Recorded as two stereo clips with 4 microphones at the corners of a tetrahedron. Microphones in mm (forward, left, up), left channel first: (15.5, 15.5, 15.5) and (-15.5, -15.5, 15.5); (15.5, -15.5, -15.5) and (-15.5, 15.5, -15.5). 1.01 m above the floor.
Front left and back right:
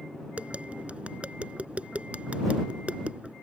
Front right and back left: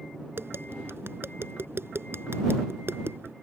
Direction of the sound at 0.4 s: 165° left.